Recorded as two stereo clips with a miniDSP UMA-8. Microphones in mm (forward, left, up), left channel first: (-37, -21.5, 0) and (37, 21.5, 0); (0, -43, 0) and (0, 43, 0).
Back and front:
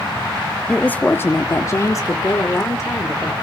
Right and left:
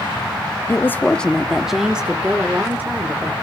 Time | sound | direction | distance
0.7 | a woman speaking | 90° right | 0.7 m